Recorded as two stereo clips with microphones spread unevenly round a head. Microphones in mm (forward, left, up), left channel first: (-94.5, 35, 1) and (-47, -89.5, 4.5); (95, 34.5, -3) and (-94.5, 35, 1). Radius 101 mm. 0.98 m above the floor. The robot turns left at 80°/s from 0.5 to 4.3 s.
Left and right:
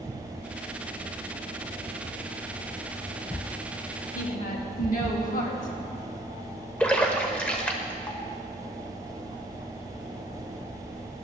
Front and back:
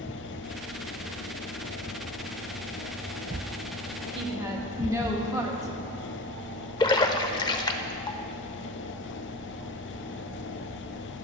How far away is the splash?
About 0.7 m.